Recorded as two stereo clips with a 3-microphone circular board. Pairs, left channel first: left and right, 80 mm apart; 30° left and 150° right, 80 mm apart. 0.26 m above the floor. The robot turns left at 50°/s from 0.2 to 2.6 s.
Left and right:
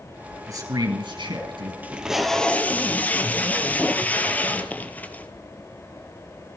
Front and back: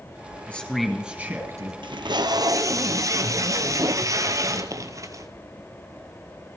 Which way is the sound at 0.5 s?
40° right.